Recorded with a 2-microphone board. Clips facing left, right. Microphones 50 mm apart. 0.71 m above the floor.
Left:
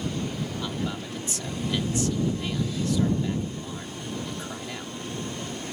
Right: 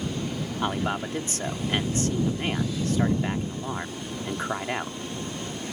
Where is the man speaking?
45° right (ahead or behind).